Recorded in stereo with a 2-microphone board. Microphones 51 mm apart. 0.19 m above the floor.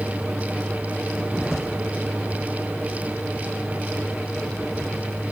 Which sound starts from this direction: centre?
A vehicle, at 0.0 s.